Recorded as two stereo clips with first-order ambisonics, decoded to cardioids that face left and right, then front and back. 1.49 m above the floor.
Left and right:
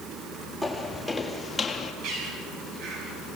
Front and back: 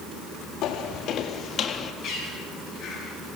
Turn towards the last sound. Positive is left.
turn(degrees=-65)